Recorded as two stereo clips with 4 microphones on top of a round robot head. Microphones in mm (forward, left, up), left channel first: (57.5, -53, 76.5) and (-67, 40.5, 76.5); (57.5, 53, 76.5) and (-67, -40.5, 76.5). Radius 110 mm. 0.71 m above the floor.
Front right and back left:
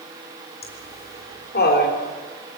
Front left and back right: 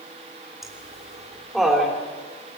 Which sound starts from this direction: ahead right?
Laughter, at 0.6 s.